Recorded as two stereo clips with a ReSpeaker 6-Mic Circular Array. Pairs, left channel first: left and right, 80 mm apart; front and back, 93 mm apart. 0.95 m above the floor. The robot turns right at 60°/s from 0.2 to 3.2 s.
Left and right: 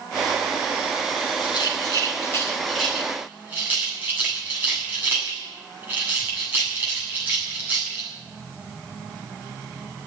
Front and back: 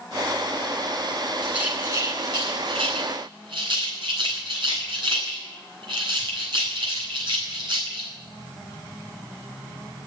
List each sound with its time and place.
1.4 s a rattle: 100° left, 7.5 m; by 8.1 s 155° right, 7.5 m